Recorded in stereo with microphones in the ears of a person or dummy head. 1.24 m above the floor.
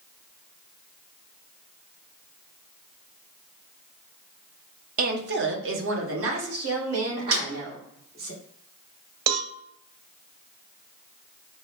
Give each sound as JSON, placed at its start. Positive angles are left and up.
{"t": 5.0, "sound": "a woman speaking", "side_deg": -40, "distance_m": 0.6}
{"t": 7.3, "sound": "a snare drum", "side_deg": -85, "distance_m": 1.9}
{"t": 9.3, "sound": "a cowbell", "side_deg": -75, "distance_m": 0.6}